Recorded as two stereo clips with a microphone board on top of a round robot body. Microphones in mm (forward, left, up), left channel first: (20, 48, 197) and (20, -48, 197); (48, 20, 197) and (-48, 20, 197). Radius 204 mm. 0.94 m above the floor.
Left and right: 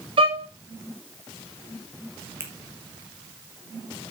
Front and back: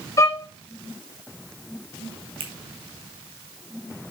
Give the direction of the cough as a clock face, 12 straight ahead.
No cough in this recording.